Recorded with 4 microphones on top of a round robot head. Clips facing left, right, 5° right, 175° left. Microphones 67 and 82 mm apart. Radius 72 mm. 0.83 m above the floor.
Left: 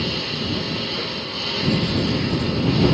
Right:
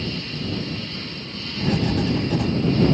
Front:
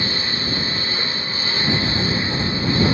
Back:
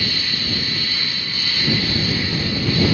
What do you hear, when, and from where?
0.0 s a lawn mower: 60° left
1.6 s writing: 70° right